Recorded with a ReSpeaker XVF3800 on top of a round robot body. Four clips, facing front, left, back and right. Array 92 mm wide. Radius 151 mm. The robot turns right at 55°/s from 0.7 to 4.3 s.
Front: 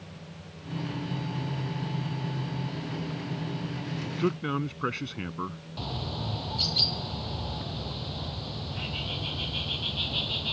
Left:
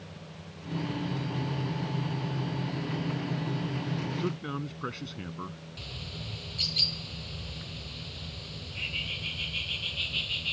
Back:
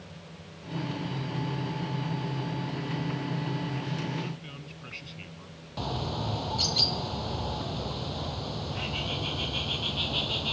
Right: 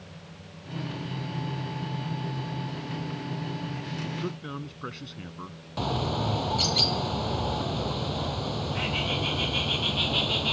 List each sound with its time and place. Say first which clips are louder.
4.1 s a man speaking: left 1 dB, front 7 dB; 10° right; by 5.6 s straight ahead
5.8 s a bird: right 20 dB, back 3 dB; 100° right